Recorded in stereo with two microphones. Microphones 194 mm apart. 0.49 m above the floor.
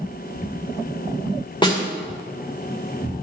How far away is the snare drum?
About 2 m.